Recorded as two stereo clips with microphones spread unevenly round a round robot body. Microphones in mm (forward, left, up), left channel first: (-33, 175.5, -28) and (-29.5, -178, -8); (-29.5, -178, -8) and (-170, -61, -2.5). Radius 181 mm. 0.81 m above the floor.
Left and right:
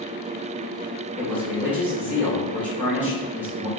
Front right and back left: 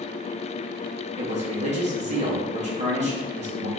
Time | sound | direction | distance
1.2 | a man speaking | 175° right | 1.4 m